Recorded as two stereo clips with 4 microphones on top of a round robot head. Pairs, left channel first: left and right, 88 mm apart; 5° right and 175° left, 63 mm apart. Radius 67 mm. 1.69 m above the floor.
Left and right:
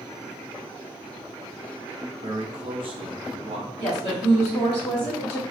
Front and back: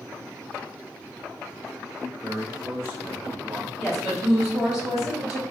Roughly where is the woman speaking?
Left.